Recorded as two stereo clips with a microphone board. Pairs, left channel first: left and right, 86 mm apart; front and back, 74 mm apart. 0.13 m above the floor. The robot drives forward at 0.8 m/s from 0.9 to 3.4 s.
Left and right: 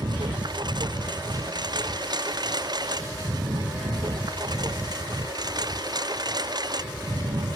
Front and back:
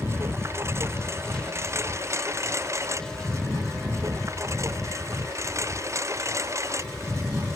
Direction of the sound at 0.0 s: 125° right.